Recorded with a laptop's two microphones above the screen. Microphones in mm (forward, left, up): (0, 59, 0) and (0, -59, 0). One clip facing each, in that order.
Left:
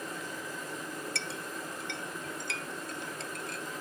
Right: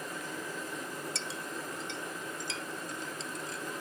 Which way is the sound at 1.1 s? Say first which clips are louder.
Even; 60° left (ahead or behind).